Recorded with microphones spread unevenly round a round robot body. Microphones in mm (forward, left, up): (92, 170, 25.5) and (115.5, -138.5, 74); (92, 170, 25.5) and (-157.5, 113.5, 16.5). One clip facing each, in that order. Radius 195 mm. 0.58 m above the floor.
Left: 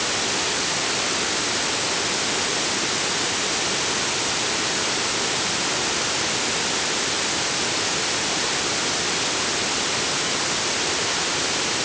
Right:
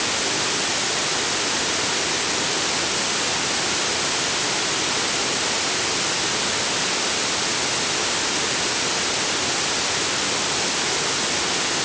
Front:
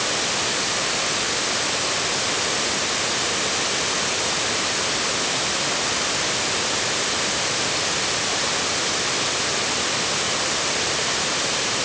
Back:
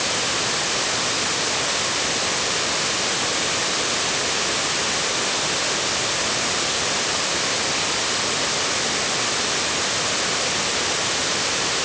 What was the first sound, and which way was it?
Only background noise.